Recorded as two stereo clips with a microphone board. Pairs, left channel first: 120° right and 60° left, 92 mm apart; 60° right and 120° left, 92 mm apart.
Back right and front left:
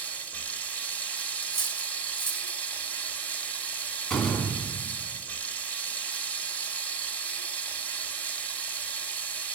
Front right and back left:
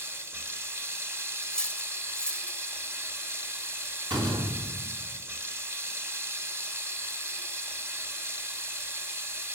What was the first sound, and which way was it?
Running water, 175° left.